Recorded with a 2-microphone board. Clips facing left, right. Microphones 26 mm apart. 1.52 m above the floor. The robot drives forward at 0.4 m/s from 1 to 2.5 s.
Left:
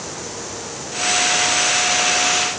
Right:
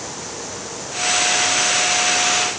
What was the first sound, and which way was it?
Only background noise.